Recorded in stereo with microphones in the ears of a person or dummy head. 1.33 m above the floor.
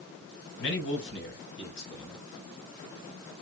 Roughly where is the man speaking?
Left.